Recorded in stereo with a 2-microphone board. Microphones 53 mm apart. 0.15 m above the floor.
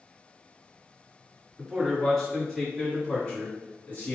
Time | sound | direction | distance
1.6 | a man speaking | centre (ahead or behind) | 2.0 m